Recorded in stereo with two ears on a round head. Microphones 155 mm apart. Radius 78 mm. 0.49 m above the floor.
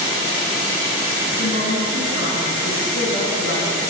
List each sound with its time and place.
1.4 s a woman speaking: 65° left (ahead or behind), 5.5 m